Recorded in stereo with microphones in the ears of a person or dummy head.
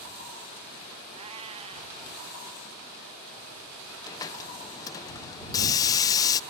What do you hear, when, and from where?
1.1 s a cat meowing: 25° right (ahead or behind)
4.1 s a hiss: 15° left (ahead or behind)